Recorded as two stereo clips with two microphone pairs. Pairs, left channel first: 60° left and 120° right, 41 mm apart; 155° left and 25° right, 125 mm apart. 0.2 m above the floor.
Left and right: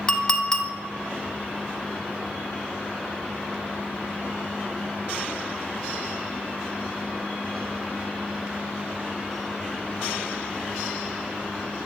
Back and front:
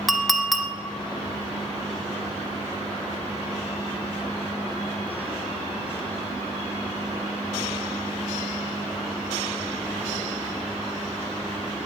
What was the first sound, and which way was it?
A clink, 65° left.